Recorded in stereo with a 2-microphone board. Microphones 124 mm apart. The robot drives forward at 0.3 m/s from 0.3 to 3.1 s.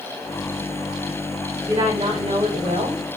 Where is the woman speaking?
75° right (ahead or behind), 3 m; by 3.0 s 65° right (ahead or behind), 3.5 m.